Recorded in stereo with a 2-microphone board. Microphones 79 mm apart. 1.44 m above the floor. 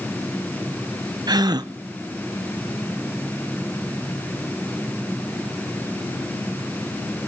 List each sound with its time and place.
1.3 s a gasp: 55° right (ahead or behind), 0.6 m